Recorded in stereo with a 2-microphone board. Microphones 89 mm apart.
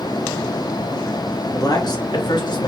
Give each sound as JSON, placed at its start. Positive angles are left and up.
{"t": 1.5, "sound": "a man speaking", "side_deg": 55, "distance_m": 2.0}